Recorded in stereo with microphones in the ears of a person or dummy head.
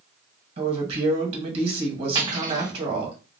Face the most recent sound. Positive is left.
turn(degrees=-25)  # may be behind; listen again after turning